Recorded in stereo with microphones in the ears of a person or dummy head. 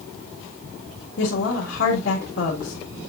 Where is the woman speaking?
75° left (ahead or behind), 1.9 m.